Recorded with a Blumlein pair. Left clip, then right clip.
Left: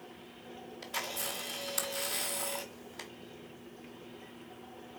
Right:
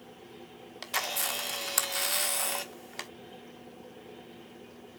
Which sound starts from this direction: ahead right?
A camera shutter, at 0.8 s.